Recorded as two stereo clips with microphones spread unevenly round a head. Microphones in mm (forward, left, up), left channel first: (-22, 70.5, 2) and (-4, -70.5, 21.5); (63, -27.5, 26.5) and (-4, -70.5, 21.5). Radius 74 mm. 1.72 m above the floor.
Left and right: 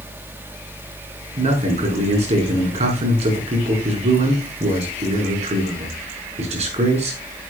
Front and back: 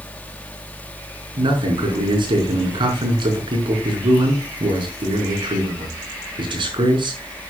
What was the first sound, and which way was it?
A fan, 25° right.